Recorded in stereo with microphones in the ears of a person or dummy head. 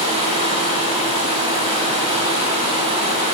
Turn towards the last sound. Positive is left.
turn(degrees=-35)  # may be behind; listen again after turning